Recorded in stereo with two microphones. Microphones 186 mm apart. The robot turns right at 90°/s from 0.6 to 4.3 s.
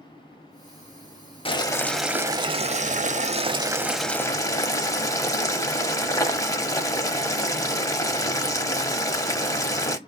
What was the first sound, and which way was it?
Boiling, 130° left.